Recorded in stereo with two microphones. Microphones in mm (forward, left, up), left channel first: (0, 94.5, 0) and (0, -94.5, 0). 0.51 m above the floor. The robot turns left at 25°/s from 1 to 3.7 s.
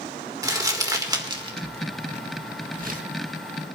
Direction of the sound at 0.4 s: 20° right (ahead or behind).